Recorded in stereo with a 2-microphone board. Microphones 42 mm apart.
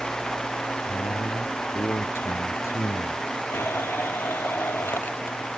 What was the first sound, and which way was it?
A man speaking, 85° left.